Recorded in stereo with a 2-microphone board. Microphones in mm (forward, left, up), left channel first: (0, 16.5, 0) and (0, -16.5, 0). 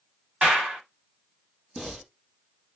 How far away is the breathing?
About 1.8 m.